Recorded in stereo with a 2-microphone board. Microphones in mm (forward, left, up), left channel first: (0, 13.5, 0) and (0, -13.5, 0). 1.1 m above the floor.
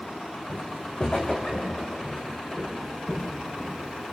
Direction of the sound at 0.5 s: 40° left (ahead or behind).